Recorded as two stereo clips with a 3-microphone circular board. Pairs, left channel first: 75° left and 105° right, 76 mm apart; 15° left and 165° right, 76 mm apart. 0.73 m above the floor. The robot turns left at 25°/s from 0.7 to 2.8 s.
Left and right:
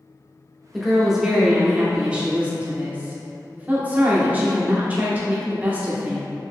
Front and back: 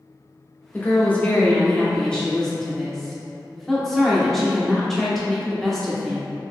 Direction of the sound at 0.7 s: 15° right.